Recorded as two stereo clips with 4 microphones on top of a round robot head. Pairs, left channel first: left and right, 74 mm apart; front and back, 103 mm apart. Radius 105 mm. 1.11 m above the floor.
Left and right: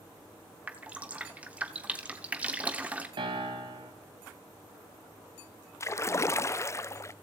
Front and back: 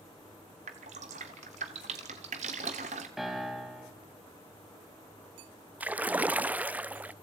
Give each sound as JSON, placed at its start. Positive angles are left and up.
{"t": 0.7, "sound": "dripping", "azimuth_deg": -160, "distance_m": 1.1}
{"t": 3.2, "sound": "a piano", "azimuth_deg": -95, "distance_m": 1.8}
{"t": 5.8, "sound": "a splash", "azimuth_deg": 110, "distance_m": 0.5}